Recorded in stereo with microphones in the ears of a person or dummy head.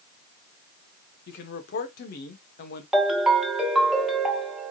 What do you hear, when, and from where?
1.3 s a man speaking: 55° left (ahead or behind), 0.9 m
2.9 s a ringtone: 5° right (ahead or behind), 0.9 m